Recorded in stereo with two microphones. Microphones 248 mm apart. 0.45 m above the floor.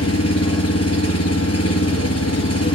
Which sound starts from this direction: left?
An engine running, at 0.0 s.